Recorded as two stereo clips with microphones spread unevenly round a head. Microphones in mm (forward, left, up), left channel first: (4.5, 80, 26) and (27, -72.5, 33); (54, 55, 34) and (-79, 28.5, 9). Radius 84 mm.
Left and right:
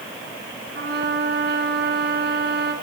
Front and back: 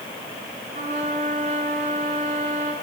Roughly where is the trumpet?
Behind right.